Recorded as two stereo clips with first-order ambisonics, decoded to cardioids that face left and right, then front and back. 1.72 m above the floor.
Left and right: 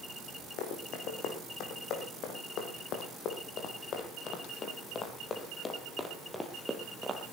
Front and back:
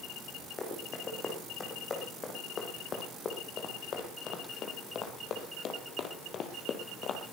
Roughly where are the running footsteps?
Ahead left.